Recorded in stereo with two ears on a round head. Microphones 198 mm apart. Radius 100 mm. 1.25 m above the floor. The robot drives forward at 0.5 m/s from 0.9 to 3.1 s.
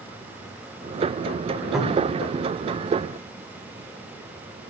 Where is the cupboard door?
Centre (ahead or behind), 1.7 m.